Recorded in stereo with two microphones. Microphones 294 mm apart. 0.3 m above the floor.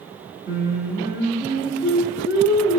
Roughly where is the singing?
Centre.